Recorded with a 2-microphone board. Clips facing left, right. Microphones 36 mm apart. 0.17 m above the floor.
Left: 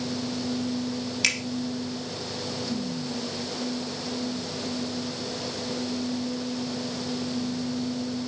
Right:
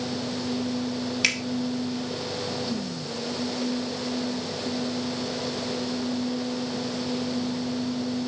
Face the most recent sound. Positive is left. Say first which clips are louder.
# right 1 dB
turn(degrees=-5)  # may be behind; listen again after turning